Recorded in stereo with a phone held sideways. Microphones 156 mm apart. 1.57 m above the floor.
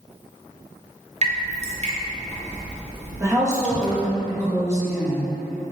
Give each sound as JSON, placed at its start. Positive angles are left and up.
{"t": 1.2, "sound": "dripping", "side_deg": -45, "distance_m": 0.6}
{"t": 3.2, "sound": "a woman speaking", "side_deg": -20, "distance_m": 1.4}